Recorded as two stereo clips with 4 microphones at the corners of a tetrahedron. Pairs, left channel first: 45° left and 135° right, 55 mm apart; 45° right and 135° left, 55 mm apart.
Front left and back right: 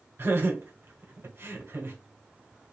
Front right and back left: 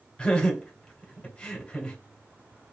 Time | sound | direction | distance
0.2 | laughter | 120° right | 1.5 m